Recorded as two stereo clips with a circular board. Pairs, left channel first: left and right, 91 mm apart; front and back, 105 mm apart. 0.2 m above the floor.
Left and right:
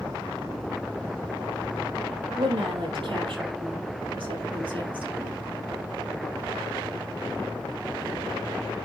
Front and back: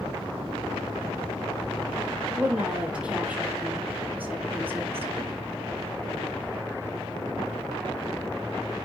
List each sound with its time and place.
2.4 s a woman speaking: 100° right, 5 m; by 5.4 s 115° right, 4 m